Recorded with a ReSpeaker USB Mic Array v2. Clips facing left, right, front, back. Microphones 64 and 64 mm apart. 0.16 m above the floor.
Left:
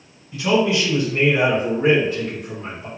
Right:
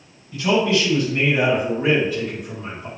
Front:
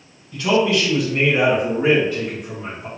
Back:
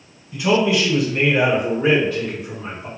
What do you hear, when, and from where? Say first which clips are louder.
0.3 s a man speaking: even, even; 150° left, 1.2 m; by 2.9 s 50° left, 2.0 m